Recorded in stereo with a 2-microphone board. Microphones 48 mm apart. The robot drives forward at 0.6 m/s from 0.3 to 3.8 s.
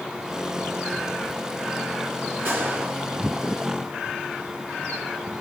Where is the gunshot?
50° right (ahead or behind), 2.5 m; by 2.9 s 55° right (ahead or behind), 2 m.